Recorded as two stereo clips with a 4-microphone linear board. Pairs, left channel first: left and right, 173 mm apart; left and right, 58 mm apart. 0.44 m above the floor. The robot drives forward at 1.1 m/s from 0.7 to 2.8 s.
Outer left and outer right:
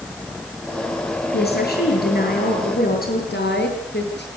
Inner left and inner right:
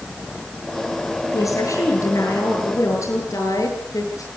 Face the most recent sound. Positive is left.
turn(degrees=85)